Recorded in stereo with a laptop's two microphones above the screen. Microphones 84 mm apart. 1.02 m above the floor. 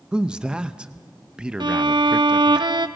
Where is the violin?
70° right (ahead or behind), 0.9 m.